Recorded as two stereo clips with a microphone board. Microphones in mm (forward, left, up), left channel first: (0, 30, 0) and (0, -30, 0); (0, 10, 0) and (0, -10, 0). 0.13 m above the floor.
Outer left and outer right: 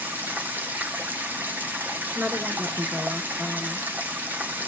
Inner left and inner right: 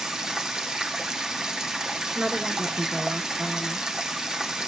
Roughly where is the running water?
Right.